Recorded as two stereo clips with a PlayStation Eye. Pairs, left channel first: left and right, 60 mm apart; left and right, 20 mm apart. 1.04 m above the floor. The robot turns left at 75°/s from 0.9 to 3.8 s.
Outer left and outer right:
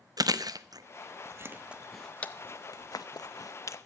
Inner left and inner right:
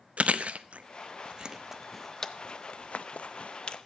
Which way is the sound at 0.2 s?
75° right (ahead or behind).